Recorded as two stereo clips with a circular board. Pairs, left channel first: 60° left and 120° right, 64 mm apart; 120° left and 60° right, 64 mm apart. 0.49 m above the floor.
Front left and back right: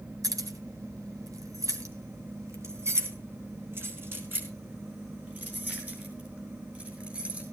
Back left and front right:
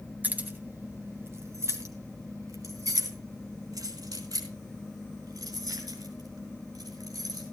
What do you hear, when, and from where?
0.2 s keys jangling: 125° right, 2.5 m; by 7.4 s 50° right, 7 m